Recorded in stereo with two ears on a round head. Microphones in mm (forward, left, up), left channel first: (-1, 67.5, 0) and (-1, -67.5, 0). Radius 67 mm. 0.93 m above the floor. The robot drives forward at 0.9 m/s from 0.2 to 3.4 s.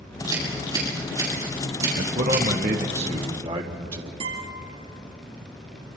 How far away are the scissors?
About 8 m.